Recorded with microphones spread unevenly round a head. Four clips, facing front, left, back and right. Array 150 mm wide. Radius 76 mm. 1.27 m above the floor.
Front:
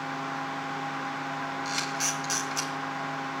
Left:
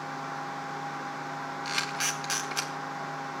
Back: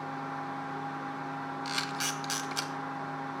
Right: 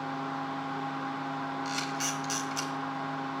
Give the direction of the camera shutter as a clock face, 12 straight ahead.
9 o'clock.